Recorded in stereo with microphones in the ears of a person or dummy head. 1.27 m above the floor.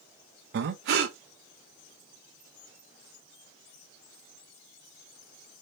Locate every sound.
0.5 s breathing: 60° right (ahead or behind), 0.6 m